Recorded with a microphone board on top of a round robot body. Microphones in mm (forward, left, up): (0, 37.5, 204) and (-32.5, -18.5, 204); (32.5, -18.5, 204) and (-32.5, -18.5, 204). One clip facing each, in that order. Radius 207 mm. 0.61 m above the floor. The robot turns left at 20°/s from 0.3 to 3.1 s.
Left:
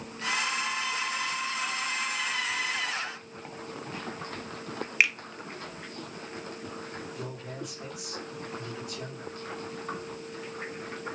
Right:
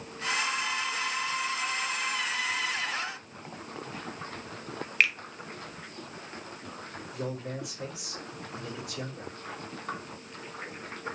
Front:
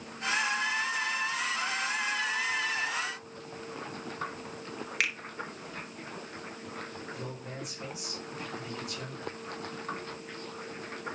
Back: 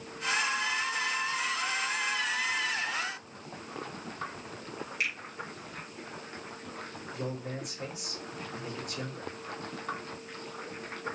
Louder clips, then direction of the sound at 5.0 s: Even, front 2 dB; 20° right.